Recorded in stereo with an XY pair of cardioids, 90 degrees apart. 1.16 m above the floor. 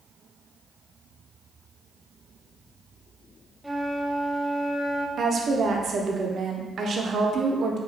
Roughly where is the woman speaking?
Ahead right.